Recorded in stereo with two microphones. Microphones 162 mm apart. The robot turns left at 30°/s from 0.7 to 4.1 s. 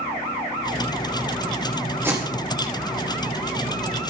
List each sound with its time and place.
2.0 s tape being pulled: 15° right (ahead or behind), 3.5 m; by 2.7 s 30° right (ahead or behind), 3.5 m